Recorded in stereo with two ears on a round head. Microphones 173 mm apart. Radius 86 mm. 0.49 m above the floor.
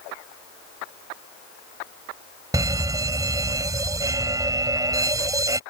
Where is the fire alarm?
20° right (ahead or behind).